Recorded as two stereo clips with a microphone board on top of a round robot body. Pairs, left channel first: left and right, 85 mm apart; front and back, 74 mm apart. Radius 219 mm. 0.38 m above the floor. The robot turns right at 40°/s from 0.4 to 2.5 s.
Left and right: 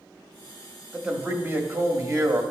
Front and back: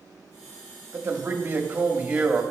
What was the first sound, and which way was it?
A man speaking, 160° right.